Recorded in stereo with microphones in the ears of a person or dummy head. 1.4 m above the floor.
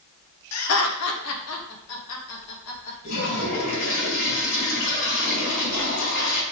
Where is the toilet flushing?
60° left (ahead or behind), 4 m.